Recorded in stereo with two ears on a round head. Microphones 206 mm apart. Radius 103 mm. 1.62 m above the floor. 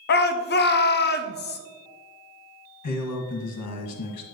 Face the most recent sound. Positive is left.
turn(degrees=85)